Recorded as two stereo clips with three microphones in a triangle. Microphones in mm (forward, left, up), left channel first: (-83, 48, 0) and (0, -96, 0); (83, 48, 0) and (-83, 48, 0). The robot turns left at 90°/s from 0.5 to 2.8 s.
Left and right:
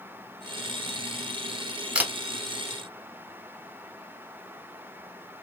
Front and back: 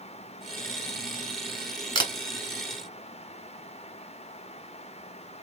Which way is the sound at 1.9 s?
15° left.